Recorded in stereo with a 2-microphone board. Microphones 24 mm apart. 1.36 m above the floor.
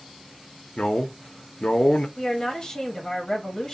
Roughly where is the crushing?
No crushing in this recording.